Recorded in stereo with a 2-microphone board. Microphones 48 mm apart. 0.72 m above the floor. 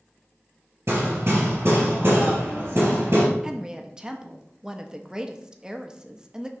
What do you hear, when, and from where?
0.9 s hammering: 60° right (ahead or behind), 3.5 m
3.4 s a woman speaking: 15° right (ahead or behind), 0.6 m